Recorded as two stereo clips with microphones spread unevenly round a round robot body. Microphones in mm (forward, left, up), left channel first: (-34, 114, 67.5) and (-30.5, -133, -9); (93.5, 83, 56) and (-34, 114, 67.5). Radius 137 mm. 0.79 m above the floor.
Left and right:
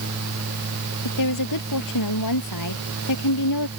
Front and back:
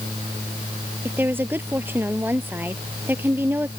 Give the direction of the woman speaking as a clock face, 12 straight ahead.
9 o'clock.